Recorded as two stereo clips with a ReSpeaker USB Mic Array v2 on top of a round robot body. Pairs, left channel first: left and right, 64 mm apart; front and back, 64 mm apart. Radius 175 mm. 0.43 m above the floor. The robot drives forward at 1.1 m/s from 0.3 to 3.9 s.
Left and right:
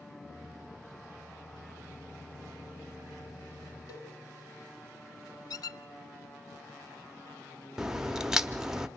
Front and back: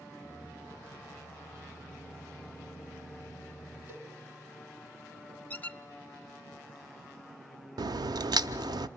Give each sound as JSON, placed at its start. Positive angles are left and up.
{"t": 3.9, "sound": "a cowbell", "azimuth_deg": 120, "distance_m": 3.0}
{"t": 5.5, "sound": "a squeak", "azimuth_deg": 65, "distance_m": 0.6}
{"t": 7.8, "sound": "a crack", "azimuth_deg": -170, "distance_m": 0.5}